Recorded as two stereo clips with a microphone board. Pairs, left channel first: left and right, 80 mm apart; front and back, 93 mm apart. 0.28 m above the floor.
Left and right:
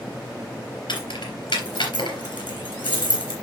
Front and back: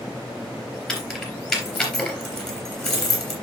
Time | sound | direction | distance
0.9 | keys jangling | 90° left | 3 m